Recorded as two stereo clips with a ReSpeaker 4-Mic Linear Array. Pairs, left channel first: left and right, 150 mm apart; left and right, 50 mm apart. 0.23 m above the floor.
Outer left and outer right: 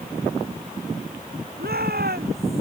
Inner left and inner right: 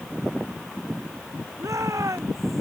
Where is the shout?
80° right.